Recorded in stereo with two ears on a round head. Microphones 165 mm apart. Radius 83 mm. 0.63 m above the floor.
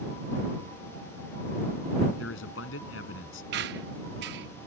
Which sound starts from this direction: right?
A squeak, at 3.5 s.